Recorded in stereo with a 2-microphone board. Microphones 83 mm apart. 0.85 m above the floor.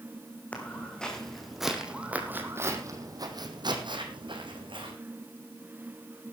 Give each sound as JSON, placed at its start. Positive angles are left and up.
{"t": 0.5, "sound": "footsteps", "side_deg": 15, "distance_m": 3.5}